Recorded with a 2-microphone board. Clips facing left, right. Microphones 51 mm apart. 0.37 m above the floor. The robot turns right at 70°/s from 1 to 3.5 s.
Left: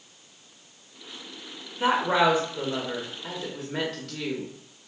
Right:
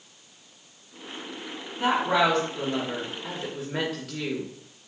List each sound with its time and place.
1.8 s a woman speaking: 20° left (ahead or behind), 1.0 m; by 4.5 s 5° right (ahead or behind), 1.0 m